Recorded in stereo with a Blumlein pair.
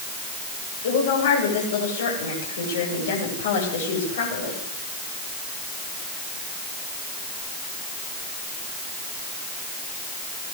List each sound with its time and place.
0.8 s a woman speaking: 60° left, 9.5 m